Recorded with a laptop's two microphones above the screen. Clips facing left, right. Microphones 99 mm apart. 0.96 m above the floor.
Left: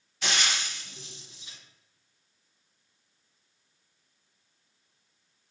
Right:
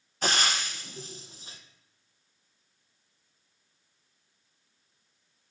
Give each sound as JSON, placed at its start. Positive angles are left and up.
{"t": 0.2, "sound": "frying", "side_deg": -40, "distance_m": 0.7}